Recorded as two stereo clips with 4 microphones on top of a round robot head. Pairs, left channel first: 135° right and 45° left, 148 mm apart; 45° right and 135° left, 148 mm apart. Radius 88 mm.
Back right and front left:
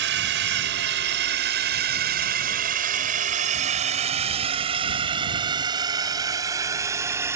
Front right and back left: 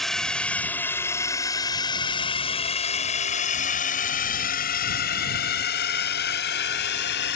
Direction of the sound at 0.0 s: 45° left.